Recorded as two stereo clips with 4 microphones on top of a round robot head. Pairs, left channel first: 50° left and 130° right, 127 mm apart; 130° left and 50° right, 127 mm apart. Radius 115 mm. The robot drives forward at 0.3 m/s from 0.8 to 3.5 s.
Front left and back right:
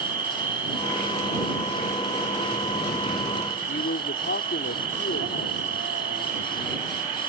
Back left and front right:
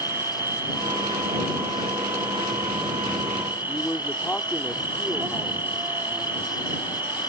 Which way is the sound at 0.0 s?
120° right.